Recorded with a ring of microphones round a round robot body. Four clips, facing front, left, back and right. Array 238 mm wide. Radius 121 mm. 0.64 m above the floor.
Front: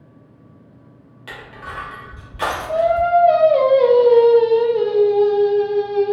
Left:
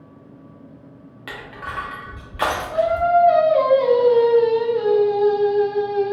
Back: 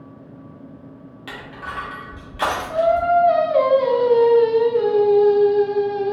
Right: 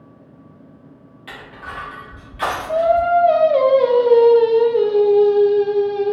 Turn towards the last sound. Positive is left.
turn(degrees=-45)